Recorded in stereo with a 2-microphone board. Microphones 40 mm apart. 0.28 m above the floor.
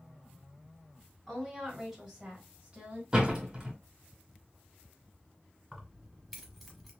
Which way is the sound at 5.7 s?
Centre (ahead or behind).